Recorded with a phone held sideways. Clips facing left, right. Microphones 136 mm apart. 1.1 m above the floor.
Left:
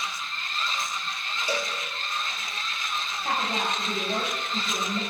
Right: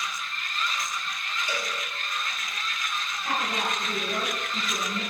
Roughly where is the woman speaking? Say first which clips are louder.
Left 1 dB; left.